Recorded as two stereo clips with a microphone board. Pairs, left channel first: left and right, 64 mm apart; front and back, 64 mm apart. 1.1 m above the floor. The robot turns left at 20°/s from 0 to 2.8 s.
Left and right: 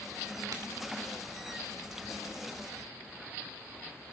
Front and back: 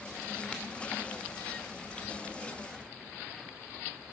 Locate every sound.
0.5 s a crack: 70° right, 2.5 m